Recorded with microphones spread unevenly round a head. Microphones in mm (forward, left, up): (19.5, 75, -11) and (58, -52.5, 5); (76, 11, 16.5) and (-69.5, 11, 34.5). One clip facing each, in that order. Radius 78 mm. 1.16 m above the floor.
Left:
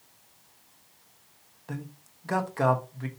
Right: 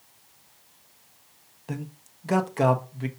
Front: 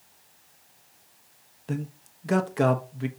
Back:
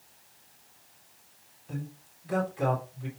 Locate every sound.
1.7 s a man speaking: 5° right, 1.1 m